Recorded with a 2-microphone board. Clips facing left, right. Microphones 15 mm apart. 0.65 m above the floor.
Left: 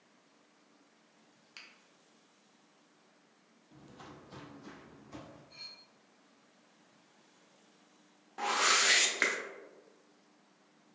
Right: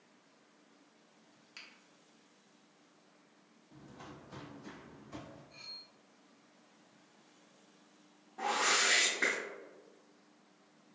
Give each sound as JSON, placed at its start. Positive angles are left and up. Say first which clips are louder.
{"t": 1.6, "sound": "a finger snap", "louder": "even", "side_deg": 10, "distance_m": 0.5}
{"t": 3.7, "sound": "footsteps", "louder": "even", "side_deg": 30, "distance_m": 0.8}
{"t": 5.5, "sound": "cutlery clinking", "louder": "right 1 dB", "side_deg": 60, "distance_m": 1.7}
{"t": 8.4, "sound": "a whoosh", "louder": "left 2 dB", "side_deg": 55, "distance_m": 0.5}